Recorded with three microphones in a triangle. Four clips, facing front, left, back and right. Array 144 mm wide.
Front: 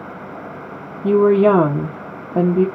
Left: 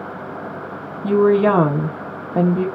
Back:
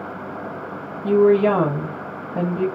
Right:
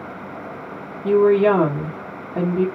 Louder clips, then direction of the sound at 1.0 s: Even, front 2 dB; 35° left.